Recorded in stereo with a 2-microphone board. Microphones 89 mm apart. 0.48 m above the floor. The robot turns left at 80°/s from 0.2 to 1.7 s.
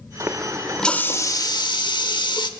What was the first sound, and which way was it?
A running tap, 140° right.